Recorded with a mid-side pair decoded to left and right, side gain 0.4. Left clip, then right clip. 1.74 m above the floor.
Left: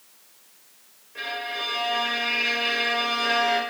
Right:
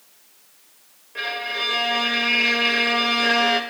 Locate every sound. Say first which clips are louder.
1.1 s a violin: right 4 dB; 45° right, 1.3 m